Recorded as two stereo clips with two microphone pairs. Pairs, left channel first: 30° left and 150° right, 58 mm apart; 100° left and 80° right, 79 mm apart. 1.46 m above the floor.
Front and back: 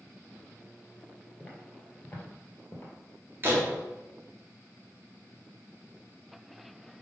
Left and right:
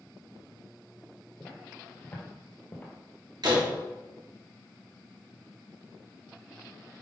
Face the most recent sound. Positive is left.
turn(degrees=-100)